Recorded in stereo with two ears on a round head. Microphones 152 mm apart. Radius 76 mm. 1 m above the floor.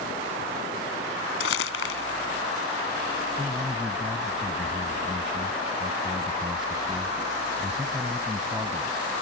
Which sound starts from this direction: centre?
A man speaking, at 3.4 s.